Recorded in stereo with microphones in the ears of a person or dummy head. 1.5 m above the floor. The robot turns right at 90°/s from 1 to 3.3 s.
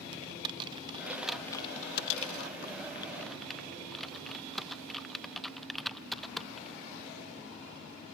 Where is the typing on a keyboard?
25° right (ahead or behind); by 6.8 s centre (ahead or behind).